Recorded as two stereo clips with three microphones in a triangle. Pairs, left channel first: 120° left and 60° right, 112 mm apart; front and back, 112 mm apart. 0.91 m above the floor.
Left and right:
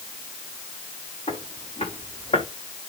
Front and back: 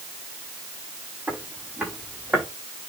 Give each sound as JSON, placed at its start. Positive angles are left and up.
{"t": 1.3, "sound": "footsteps", "azimuth_deg": 105, "distance_m": 6.5}